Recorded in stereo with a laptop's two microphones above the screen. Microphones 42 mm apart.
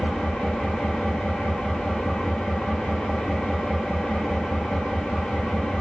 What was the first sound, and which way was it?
An engine running, 15° left (ahead or behind).